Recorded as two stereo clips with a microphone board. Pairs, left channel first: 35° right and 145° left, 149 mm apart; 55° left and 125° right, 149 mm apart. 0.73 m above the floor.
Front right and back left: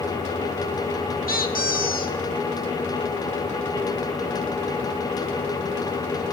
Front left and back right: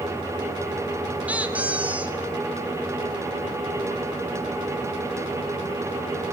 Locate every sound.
1.3 s a squeak: 45° right, 1.9 m